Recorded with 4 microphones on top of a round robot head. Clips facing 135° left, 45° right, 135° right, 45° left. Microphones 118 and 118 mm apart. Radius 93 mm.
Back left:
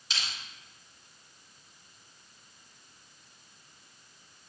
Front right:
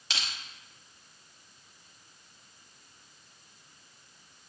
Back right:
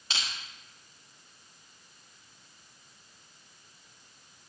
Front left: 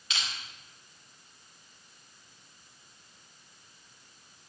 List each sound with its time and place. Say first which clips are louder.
0.1 s crushing: front right 1 dB, even; 75° right, 1.2 m